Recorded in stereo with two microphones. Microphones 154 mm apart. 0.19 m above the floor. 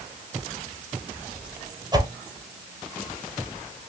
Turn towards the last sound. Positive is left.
turn(degrees=-25)  # may be behind; listen again after turning